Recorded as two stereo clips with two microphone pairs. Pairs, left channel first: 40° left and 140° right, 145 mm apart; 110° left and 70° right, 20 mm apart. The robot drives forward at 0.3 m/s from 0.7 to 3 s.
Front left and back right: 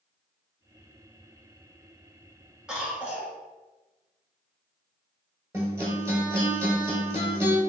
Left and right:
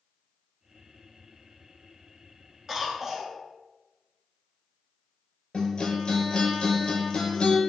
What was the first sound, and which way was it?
A cough, 60° right.